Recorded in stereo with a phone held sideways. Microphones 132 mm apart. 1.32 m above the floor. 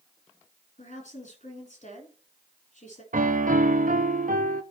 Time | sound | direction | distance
0.8 | a woman speaking | 60° left (ahead or behind) | 3.5 m
3.1 | a piano | 85° right | 0.5 m